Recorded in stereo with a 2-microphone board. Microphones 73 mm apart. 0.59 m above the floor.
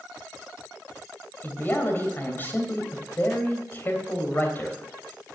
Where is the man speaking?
30° left (ahead or behind), 3 m.